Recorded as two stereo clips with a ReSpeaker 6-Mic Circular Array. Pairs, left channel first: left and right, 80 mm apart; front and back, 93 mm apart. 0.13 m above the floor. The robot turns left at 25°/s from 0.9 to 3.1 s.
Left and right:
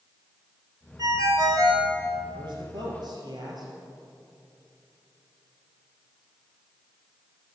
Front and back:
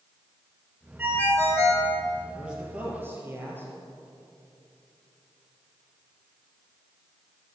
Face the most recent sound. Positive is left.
turn(degrees=-115)